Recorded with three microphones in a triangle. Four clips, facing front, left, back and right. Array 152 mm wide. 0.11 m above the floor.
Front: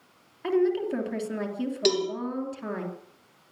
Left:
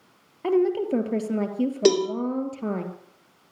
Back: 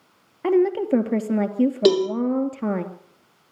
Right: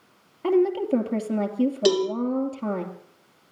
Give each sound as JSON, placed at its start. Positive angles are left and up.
{"t": 0.4, "sound": "a woman speaking", "azimuth_deg": 180, "distance_m": 2.5}
{"t": 1.9, "sound": "a cowbell", "azimuth_deg": 140, "distance_m": 3.0}